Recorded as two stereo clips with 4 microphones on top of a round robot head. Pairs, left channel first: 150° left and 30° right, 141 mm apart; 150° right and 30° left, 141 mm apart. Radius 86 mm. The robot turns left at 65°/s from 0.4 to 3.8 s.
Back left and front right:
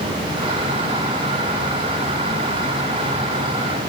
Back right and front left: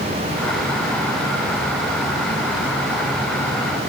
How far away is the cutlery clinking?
I don't hear cutlery clinking.